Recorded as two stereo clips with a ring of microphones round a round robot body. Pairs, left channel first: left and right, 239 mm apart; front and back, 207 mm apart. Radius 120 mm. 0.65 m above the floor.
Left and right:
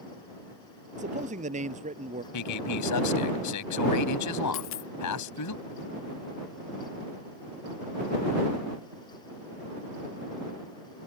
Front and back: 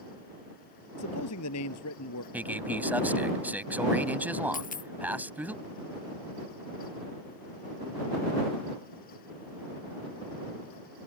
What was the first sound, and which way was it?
A man speaking, 30° right.